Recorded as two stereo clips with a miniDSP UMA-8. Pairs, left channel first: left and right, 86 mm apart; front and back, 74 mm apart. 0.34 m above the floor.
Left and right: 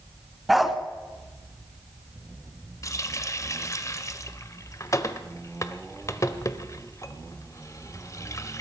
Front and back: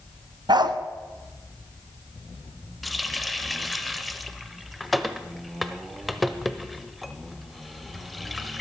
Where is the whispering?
I don't hear whispering.